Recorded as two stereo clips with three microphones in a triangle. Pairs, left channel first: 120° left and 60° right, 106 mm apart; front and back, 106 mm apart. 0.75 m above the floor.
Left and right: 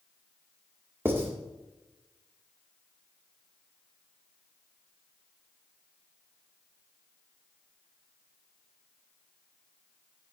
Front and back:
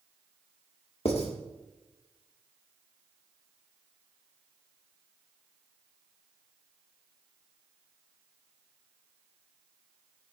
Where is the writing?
5° left, 2.0 m.